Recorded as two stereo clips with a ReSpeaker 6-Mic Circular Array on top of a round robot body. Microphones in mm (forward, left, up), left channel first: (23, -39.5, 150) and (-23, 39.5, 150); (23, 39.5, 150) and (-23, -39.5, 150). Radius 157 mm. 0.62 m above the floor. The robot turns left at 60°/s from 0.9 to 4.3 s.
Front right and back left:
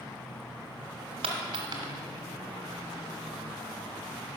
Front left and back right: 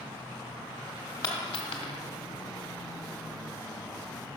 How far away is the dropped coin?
About 1.2 m.